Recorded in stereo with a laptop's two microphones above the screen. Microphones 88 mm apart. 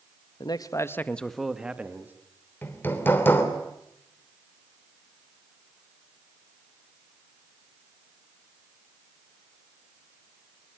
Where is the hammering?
25° left (ahead or behind), 3.5 m.